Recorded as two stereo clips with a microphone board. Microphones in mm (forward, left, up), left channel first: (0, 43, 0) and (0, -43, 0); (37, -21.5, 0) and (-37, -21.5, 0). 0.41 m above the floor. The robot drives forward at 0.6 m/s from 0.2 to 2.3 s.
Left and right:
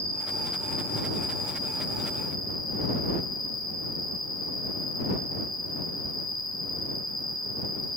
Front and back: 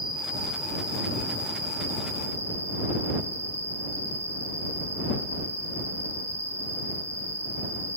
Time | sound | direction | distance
0.0 | an insect | 100° left | 3 m